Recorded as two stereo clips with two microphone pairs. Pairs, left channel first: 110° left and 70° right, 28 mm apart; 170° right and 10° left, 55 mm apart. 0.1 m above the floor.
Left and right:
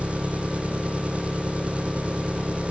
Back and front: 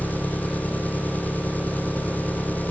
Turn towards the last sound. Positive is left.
turn(degrees=-110)